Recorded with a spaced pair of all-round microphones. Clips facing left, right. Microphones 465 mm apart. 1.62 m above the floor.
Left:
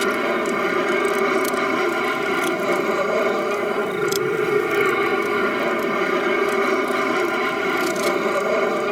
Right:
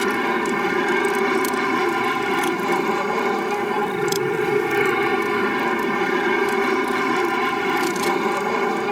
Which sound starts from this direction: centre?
An aircraft, at 0.0 s.